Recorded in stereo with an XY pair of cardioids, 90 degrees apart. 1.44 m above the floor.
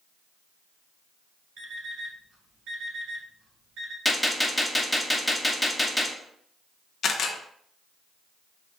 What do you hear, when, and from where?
1.6 s an alarm clock: 70° right, 2.5 m
4.0 s a gunshot: 10° left, 1.1 m
7.0 s a camera shutter: 65° left, 0.9 m